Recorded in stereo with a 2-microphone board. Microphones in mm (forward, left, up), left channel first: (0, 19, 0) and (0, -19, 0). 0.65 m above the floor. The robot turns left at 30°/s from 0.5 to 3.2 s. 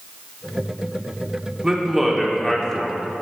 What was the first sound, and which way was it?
A man speaking, 165° right.